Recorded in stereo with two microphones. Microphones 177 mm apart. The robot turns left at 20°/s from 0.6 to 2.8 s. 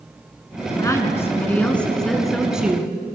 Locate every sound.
0.8 s a woman speaking: 30° left, 1.3 m; by 3.0 s 10° right, 1.3 m